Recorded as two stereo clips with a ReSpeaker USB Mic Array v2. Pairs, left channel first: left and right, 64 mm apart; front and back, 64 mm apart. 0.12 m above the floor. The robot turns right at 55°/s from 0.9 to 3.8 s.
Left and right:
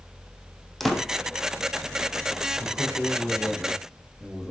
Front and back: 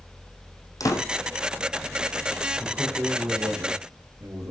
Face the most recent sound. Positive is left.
turn(degrees=175)